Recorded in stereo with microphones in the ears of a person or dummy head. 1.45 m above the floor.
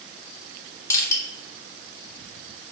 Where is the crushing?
20° left (ahead or behind), 0.9 m.